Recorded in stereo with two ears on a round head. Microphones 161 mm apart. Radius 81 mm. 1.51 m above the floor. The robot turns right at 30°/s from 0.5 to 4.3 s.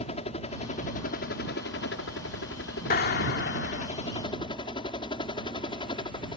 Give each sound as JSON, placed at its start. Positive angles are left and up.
{"t": 0.0, "sound": "a helicopter", "azimuth_deg": 35}
{"t": 2.9, "sound": "a clap", "side_deg": 50}